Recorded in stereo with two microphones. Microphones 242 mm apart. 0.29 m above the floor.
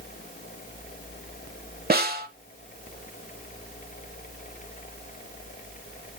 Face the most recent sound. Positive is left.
turn(degrees=-40)  # may be behind; listen again after turning